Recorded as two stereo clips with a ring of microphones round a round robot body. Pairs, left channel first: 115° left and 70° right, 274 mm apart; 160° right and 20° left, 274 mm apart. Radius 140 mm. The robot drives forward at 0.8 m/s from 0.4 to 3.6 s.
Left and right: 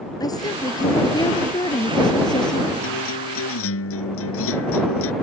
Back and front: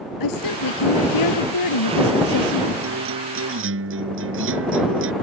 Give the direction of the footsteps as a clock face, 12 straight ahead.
No footsteps in this recording.